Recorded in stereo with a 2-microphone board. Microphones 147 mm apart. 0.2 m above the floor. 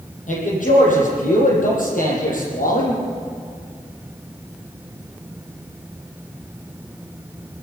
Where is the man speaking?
60° left (ahead or behind), 7.5 m; by 3.0 s 70° left (ahead or behind), 8 m.